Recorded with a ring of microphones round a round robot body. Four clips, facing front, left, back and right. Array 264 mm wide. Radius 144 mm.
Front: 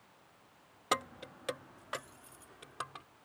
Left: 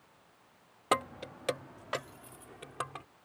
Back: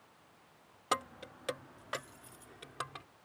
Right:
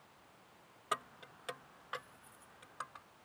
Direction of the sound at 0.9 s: 80° left.